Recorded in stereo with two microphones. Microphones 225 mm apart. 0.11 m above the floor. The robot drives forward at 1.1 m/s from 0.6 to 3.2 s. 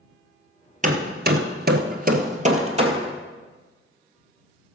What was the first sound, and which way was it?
Hammering, 35° right (ahead or behind).